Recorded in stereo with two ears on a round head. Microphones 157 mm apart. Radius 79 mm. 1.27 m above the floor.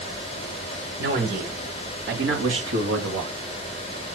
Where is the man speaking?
50° right (ahead or behind), 4 m; by 3.3 s 75° right (ahead or behind), 2 m.